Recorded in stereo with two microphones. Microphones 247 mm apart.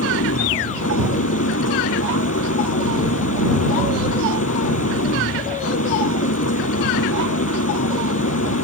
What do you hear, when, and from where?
0.0 s an engine running: 75° left (ahead or behind)